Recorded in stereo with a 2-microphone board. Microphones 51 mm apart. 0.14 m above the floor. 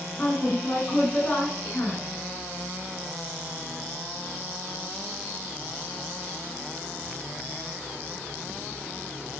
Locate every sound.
0.2 s a woman speaking: 40° left (ahead or behind), 1.3 m